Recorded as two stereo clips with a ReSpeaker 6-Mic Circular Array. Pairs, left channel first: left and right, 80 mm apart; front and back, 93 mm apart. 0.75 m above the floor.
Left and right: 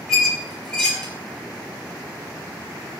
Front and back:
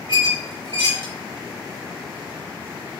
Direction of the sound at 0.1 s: 10° left.